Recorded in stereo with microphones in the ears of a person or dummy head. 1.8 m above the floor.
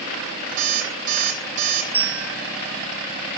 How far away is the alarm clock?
About 1.9 m.